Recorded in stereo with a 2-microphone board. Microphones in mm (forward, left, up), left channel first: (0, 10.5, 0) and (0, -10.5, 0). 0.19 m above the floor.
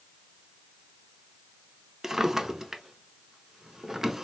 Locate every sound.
2.0 s a drawer: 25° right (ahead or behind), 0.5 m